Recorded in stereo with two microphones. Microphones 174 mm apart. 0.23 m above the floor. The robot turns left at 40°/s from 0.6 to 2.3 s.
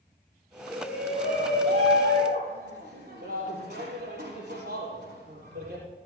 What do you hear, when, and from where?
0.7 s a shout: 25° right, 5 m; by 5.8 s 90° right, 5 m